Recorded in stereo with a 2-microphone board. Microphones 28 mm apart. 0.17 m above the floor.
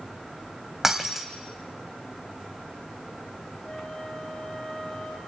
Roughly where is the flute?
Left.